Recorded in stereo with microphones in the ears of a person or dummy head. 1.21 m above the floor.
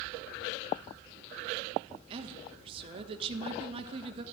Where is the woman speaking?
35° right (ahead or behind), 1.1 m.